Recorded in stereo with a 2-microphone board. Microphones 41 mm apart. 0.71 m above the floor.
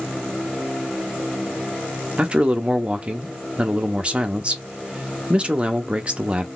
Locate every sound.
2.2 s a man speaking: 25° right (ahead or behind), 0.7 m